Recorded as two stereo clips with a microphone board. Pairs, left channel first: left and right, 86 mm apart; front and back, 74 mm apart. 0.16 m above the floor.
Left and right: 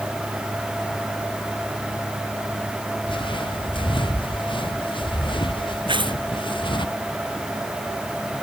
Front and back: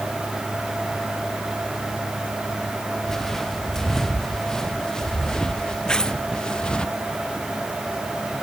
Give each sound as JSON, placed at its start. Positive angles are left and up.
{"t": 3.1, "sound": "footsteps", "azimuth_deg": 85}
{"t": 5.9, "sound": "tearing paper", "azimuth_deg": -80}